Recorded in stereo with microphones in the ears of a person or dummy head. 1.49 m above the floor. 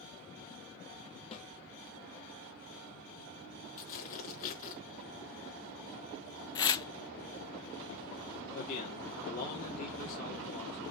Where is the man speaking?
50° left (ahead or behind), 3 m.